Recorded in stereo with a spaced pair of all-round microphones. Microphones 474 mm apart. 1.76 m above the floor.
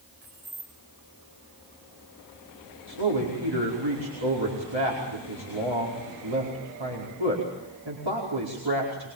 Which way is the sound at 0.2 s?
70° right (ahead or behind).